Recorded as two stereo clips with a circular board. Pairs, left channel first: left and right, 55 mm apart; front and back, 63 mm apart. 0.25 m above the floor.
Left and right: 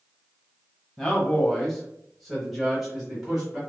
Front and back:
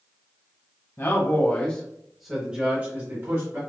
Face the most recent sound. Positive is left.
turn(degrees=-170)